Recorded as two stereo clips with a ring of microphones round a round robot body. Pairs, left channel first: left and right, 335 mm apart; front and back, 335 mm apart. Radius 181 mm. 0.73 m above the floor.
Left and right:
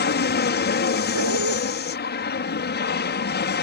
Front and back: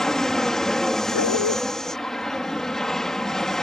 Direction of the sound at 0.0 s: 85° left.